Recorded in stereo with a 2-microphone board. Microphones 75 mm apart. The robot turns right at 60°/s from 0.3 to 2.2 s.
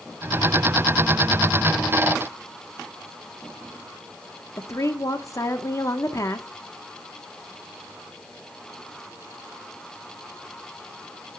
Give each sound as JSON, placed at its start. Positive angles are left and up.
{"t": 4.6, "sound": "a woman speaking", "side_deg": 45, "distance_m": 1.1}